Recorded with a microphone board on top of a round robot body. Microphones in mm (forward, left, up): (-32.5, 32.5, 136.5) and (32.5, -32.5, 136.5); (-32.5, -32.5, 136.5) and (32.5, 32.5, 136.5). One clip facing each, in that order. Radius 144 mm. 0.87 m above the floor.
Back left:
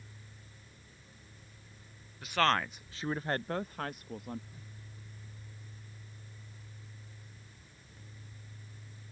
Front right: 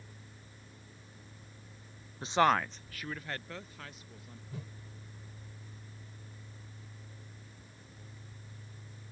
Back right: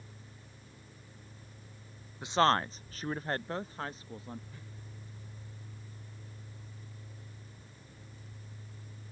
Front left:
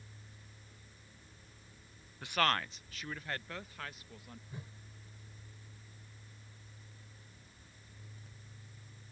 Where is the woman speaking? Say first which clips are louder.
Front right 2 dB, back right 6 dB; 75° right; by 4.4 s 165° left.